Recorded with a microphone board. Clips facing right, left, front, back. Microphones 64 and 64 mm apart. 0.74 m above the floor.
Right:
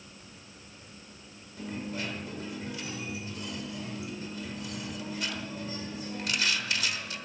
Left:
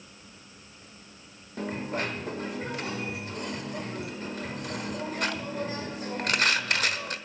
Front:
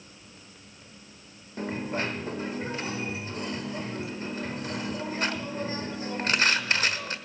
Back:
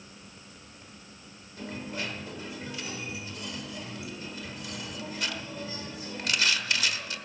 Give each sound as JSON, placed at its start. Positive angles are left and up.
{"t": 1.6, "sound": "a dropped coin", "azimuth_deg": 50, "distance_m": 1.2}